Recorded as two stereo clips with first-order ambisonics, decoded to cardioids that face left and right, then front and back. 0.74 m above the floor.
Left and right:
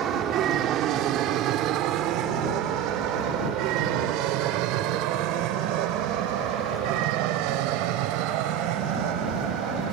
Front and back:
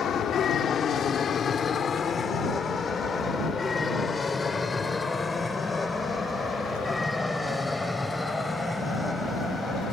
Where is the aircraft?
50° right; by 9.9 s 90° right.